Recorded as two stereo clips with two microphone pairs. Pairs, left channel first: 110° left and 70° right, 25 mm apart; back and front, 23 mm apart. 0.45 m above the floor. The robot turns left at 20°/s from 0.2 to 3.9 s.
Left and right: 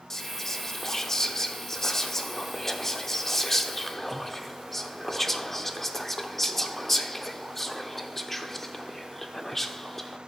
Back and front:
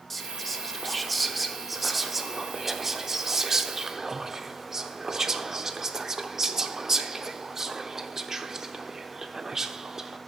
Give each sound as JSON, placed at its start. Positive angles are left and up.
{"t": 0.1, "sound": "whispering", "azimuth_deg": 130, "distance_m": 0.7}